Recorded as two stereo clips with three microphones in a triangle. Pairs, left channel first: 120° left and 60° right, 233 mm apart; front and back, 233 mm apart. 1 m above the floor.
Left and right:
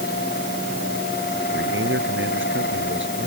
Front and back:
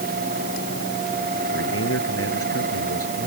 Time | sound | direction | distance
1.5 | a man speaking | 25° right | ?